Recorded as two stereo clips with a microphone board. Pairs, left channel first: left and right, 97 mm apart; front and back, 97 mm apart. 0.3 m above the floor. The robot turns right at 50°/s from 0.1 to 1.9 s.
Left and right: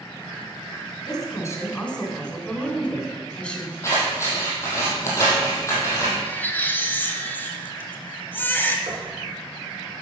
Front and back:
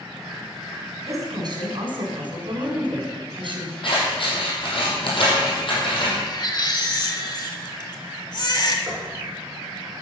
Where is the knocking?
110° right, 3.5 m.